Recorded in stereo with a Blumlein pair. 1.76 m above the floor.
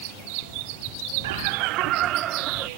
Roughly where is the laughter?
Ahead right.